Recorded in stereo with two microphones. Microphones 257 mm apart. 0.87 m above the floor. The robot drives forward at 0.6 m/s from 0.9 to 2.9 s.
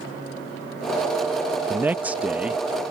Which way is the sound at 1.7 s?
10° right (ahead or behind).